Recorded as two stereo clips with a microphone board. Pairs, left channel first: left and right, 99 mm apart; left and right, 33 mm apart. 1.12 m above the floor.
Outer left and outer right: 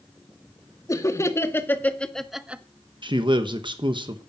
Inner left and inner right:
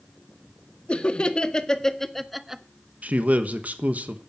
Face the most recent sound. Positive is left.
turn(degrees=-55)  # may be behind; listen again after turning